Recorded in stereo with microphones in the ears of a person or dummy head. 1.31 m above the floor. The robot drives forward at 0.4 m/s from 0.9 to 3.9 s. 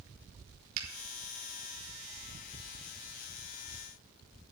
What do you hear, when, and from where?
0.8 s a finger snap: 55° right (ahead or behind), 4 m